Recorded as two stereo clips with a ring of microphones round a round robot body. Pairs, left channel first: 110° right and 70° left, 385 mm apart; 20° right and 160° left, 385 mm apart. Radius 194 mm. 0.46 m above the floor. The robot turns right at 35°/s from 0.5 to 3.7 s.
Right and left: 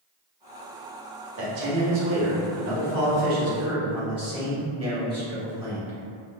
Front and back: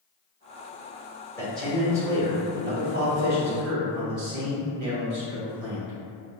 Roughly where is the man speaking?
Ahead left.